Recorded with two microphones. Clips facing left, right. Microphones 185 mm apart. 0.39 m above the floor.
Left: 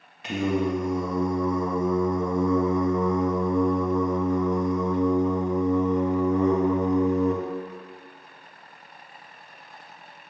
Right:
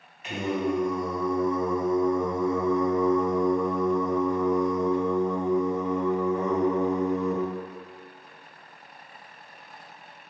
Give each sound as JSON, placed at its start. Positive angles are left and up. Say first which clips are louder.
{"t": 0.2, "sound": "singing", "louder": "left 3 dB", "side_deg": 80, "distance_m": 0.5}